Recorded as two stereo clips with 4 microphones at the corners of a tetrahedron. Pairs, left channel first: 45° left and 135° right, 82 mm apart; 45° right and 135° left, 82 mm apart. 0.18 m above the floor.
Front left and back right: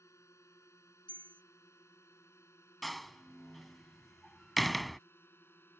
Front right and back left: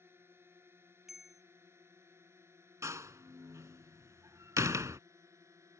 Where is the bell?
50° left.